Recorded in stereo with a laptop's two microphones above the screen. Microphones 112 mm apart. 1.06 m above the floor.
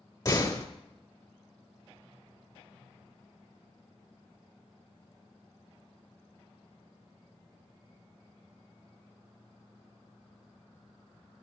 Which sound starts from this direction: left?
A door slam, at 0.2 s.